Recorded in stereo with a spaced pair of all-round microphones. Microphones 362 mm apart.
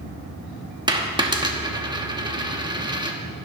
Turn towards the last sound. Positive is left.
turn(degrees=-10)  # may be behind; listen again after turning